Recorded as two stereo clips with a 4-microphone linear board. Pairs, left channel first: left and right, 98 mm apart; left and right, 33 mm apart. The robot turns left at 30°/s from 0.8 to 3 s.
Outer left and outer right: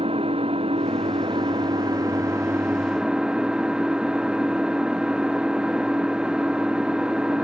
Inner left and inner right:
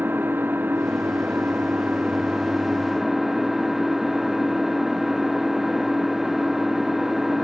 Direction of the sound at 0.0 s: 105° right.